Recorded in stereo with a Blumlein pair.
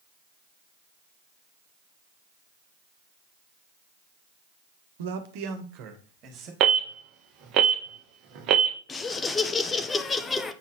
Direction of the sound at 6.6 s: 35° right.